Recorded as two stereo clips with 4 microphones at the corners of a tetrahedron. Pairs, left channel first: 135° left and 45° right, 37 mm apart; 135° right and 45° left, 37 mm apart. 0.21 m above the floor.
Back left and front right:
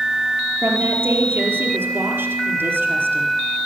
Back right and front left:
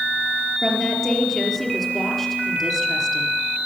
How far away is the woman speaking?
About 4.5 m.